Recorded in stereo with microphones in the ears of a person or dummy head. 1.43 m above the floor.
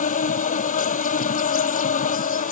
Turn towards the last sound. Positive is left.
turn(degrees=45)  # may be behind; listen again after turning